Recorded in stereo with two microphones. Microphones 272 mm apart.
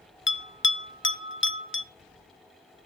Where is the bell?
45° left (ahead or behind), 0.6 m.